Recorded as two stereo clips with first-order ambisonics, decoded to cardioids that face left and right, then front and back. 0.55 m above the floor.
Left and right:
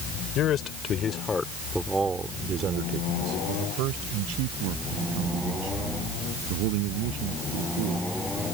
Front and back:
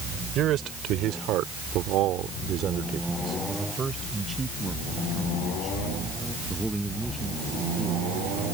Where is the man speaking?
135° left; by 8.1 s 90° right.